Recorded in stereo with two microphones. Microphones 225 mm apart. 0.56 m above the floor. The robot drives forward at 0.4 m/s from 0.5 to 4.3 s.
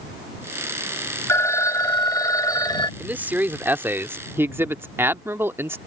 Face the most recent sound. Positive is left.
turn(degrees=-10)  # may be behind; listen again after turning